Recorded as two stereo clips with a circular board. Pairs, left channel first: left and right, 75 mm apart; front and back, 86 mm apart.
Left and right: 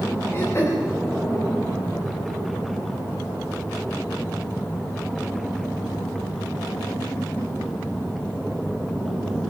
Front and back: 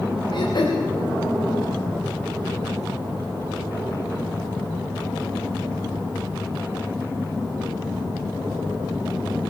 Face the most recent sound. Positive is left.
turn(degrees=35)